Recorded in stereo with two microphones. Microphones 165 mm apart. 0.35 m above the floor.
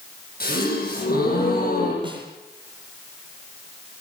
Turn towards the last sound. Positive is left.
turn(degrees=-30)  # may be behind; listen again after turning